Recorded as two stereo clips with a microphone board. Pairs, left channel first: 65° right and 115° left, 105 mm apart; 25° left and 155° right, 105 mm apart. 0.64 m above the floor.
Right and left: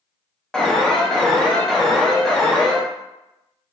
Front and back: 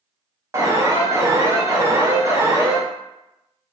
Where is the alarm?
145° right, 0.6 m.